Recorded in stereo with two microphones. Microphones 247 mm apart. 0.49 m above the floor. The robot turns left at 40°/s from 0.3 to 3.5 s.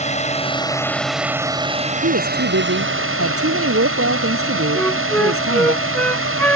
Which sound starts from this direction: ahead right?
A woman speaking, at 2.0 s.